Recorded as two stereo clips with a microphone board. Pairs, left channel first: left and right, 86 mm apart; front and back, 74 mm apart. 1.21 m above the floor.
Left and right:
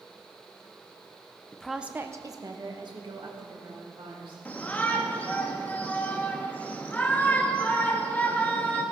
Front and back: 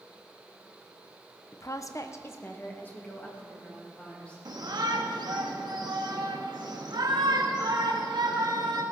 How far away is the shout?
About 1.7 m.